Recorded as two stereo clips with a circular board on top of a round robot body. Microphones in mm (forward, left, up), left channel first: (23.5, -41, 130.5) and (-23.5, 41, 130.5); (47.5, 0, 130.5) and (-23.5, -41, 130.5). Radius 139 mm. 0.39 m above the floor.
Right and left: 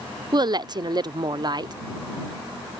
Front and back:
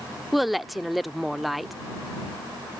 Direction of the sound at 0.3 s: 120° left.